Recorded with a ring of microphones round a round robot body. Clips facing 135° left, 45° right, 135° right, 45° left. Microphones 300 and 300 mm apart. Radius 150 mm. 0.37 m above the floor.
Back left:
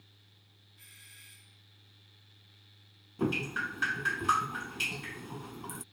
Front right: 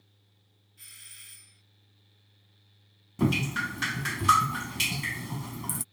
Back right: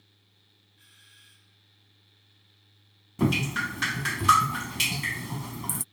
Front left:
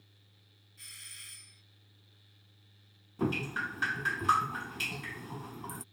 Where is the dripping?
90° right.